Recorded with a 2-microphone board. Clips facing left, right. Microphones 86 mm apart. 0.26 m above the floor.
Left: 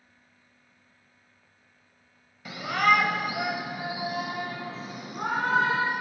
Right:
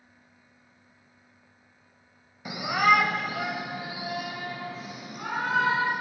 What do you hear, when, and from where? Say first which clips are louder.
2.5 s a shout: right 1 dB; 15° right (ahead or behind), 0.9 m; by 5.9 s 35° left (ahead or behind), 2.5 m